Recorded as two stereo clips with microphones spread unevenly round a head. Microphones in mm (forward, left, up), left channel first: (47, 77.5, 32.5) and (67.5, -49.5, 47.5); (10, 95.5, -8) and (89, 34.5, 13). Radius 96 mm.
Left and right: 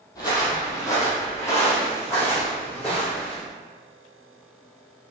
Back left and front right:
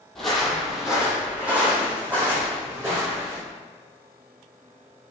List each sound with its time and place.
0.1 s footsteps: 45° left, 1.2 m; by 3.4 s 25° left, 3 m